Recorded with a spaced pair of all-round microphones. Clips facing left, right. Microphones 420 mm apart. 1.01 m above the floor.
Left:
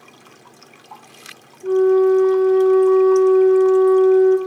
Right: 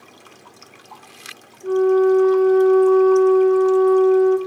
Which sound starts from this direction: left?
A flute, at 1.6 s.